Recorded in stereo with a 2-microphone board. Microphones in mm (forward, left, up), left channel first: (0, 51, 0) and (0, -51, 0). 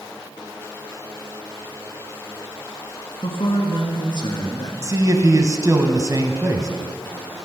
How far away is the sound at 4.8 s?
About 1.4 m.